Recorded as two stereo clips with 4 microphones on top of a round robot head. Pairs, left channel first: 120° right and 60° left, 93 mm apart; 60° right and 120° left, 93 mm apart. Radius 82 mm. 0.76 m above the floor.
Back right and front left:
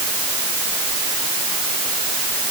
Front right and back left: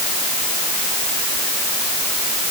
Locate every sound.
Only background noise.